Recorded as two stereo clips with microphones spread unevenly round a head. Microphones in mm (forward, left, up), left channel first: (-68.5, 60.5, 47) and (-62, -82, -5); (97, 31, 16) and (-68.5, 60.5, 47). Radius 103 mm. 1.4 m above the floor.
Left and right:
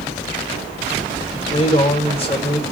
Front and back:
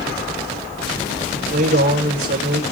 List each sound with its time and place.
1.3 s a man speaking: 145° left, 5 m